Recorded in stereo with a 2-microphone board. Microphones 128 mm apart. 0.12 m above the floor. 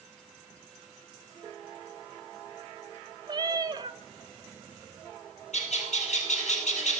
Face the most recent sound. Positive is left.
turn(degrees=65)  # may be behind; listen again after turning